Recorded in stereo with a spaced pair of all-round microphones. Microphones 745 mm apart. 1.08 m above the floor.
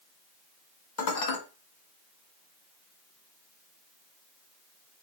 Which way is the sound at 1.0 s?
65° left (ahead or behind).